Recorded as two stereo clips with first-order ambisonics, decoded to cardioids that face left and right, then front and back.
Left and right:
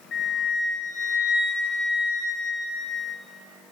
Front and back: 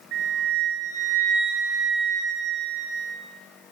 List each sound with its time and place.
0.1 s a flute: 145° left, 1.5 m